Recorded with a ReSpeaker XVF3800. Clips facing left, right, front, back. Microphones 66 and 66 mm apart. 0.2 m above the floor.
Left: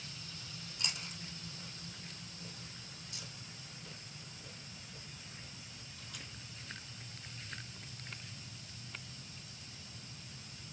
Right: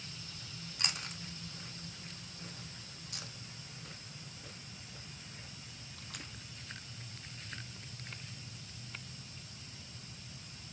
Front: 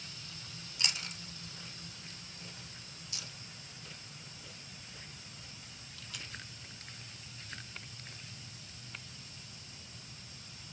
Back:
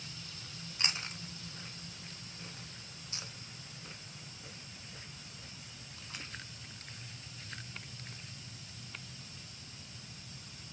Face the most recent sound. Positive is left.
turn(degrees=-120)